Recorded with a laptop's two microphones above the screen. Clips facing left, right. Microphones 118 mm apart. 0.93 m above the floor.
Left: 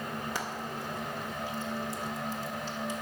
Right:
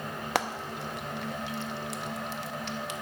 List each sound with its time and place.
0.3 s frying: 75° right (ahead or behind), 0.7 m